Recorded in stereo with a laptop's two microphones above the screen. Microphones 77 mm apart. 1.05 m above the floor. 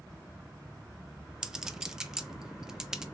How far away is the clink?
About 0.5 m.